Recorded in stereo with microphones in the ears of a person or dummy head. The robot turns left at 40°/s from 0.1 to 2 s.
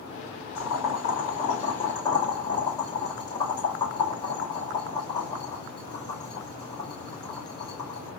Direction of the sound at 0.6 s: 65° left (ahead or behind).